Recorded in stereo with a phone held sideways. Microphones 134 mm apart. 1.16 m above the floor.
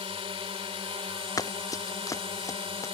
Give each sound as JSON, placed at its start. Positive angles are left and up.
{"t": 0.0, "sound": "a drone", "side_deg": -40}
{"t": 1.4, "sound": "running footsteps", "side_deg": 25}